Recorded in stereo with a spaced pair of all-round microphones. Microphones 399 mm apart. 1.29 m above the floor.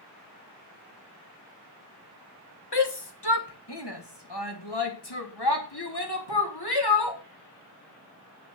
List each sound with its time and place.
2.7 s a shout: 75° left (ahead or behind), 1.6 m; by 7.2 s 65° left (ahead or behind), 4 m